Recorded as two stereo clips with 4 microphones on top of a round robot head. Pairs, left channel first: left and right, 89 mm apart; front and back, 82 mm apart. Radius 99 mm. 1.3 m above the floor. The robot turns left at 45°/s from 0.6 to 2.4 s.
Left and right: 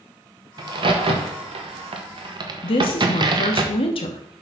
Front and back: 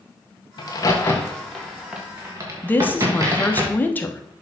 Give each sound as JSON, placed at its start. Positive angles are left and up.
{"t": 0.6, "sound": "a crack", "azimuth_deg": -45, "distance_m": 1.1}
{"t": 2.6, "sound": "a woman speaking", "azimuth_deg": 65, "distance_m": 1.1}